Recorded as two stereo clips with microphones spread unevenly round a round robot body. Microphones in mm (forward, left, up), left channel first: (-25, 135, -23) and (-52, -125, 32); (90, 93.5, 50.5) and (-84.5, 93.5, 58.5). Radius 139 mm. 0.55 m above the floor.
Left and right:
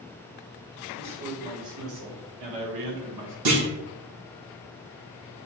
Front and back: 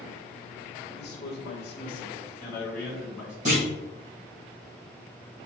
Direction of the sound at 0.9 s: 35° right.